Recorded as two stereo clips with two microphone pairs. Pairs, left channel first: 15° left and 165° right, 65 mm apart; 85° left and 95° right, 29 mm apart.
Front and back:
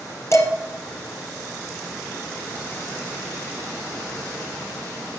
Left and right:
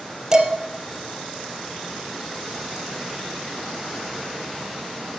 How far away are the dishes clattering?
About 3 m.